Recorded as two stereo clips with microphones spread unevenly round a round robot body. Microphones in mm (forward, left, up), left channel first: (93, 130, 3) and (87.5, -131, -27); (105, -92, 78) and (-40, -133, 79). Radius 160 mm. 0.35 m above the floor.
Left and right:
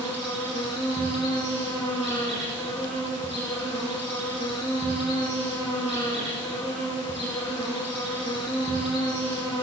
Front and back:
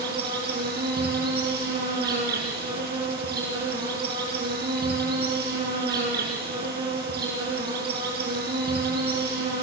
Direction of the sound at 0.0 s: 175° right.